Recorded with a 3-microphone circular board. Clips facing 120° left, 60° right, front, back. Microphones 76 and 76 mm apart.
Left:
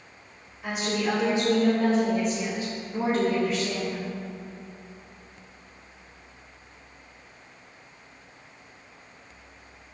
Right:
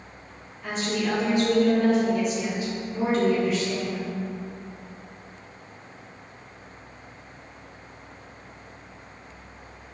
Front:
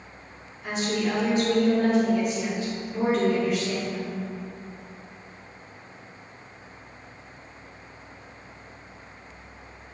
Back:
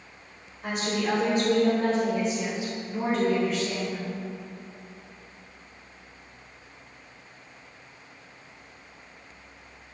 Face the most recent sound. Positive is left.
turn(degrees=75)